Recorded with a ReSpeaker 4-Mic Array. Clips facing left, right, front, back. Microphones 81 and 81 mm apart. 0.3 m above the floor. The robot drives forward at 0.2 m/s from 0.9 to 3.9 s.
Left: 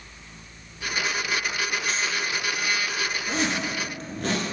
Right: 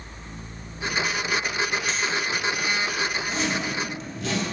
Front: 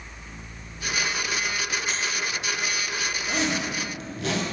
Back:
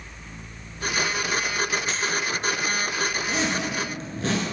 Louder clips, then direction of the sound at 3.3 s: Even, back 1 dB; 120° left.